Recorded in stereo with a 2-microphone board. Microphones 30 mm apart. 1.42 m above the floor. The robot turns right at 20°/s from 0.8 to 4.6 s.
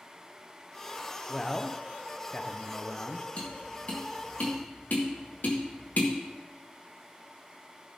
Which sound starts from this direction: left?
Tapping, at 3.4 s.